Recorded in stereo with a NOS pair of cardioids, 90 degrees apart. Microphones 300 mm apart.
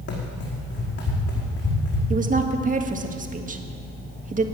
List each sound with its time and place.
0.1 s running footsteps: 55° left, 5 m
2.1 s a woman speaking: 25° right, 1.6 m